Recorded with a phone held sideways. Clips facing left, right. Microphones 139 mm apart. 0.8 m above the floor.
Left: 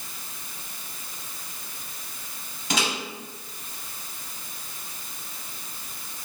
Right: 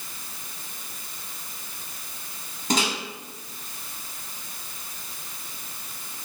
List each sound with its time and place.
2.7 s a microwave: 35° right (ahead or behind), 2.5 m